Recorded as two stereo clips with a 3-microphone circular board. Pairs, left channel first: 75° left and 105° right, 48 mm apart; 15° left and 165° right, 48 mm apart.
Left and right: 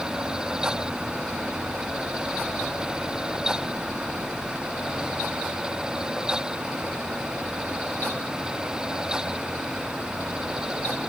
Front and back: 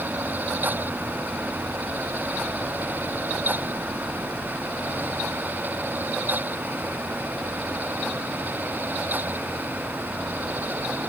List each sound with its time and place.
Only background noise.